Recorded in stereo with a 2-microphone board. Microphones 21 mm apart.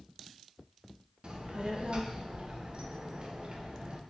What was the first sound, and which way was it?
A child speaking, 40° right (ahead or behind).